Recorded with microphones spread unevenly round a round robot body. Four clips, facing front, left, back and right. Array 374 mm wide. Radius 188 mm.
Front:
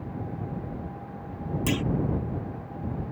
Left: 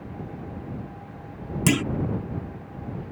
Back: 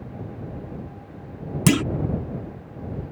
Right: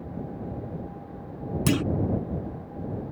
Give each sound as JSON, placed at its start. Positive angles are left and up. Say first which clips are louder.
{"t": 1.7, "sound": "a clunk", "louder": "left 2 dB, back 9 dB", "azimuth_deg": 175}